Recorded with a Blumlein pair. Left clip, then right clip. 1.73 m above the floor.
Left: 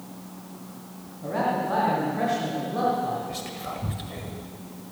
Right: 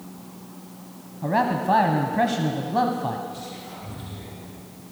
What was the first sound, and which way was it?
A man speaking, 65° right.